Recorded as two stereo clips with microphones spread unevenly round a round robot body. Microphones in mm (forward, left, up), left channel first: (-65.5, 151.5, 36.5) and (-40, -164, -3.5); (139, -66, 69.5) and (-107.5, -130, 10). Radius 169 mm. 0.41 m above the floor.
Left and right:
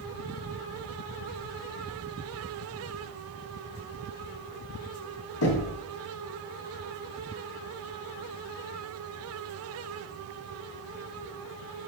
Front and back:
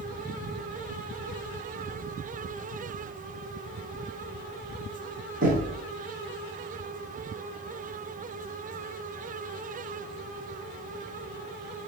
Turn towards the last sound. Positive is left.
turn(degrees=135)